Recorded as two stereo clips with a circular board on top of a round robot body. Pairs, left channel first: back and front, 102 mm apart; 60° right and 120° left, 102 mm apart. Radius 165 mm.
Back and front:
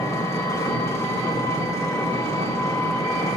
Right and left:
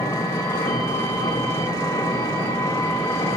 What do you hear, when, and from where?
0.0 s an engine running: 125° right, 2.5 m